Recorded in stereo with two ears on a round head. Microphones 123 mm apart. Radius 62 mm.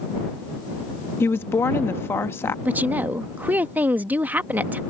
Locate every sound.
1.2 s a woman speaking: 15° left (ahead or behind)
2.6 s a woman speaking: 15° right (ahead or behind)